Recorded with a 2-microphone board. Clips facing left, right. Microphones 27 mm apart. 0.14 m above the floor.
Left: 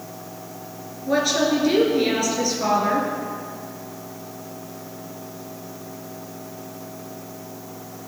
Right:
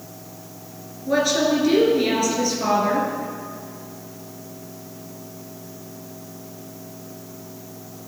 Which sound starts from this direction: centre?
A woman speaking, at 1.1 s.